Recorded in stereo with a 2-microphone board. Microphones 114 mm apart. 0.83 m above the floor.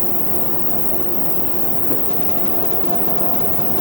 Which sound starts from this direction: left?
An insect, at 0.0 s.